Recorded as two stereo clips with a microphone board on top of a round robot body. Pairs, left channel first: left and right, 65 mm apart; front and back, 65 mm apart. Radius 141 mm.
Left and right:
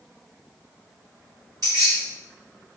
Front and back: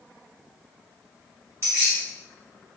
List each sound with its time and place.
1.6 s keys jangling: 130° right, 0.8 m